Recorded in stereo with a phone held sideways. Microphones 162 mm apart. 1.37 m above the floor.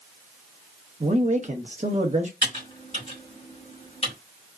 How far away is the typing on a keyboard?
About 1.8 m.